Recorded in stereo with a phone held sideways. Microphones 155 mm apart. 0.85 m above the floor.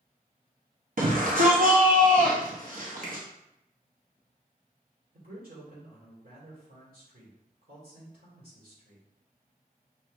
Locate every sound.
1.0 s a shout: 65° right (ahead or behind), 0.7 m
3.0 s a finger snap: 60° right (ahead or behind), 1.2 m
5.1 s a man speaking: 75° right (ahead or behind), 2 m